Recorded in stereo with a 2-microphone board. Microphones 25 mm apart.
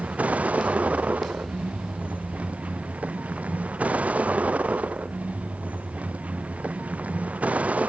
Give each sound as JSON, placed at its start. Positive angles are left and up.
{"t": 0.0, "sound": "a vehicle", "side_deg": -90}